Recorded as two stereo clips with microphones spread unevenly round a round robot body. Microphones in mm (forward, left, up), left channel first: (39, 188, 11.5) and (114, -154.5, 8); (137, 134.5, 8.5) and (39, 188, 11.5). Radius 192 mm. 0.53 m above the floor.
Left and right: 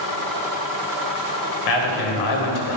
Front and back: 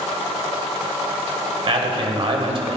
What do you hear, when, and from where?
1.7 s a man speaking: 120° left, 3 m